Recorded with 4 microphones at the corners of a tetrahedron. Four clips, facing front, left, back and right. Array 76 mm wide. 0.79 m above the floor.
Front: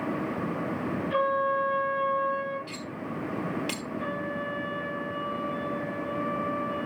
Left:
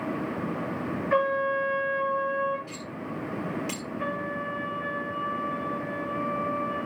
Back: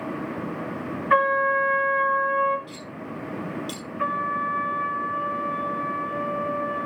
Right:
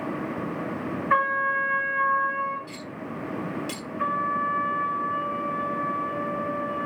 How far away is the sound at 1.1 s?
About 6.5 m.